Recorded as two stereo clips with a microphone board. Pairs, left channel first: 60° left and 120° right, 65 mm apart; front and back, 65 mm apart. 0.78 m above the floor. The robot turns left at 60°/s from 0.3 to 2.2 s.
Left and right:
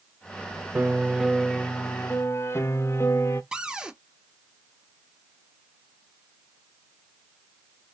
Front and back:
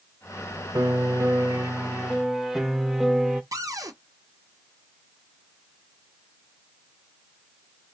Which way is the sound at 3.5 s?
160° left.